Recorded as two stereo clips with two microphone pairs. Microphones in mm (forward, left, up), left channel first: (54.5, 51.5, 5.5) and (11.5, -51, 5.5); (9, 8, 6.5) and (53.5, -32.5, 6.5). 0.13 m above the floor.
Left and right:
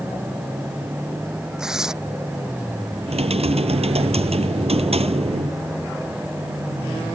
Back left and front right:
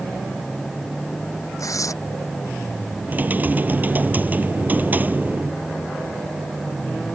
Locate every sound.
1.6 s tearing paper: 160° left
3.1 s typing on a keyboard: 100° right